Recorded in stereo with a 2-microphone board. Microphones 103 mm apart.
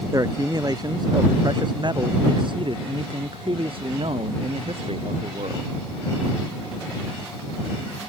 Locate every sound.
0.1 s a man speaking: 35° right (ahead or behind); by 5.7 s 70° right (ahead or behind)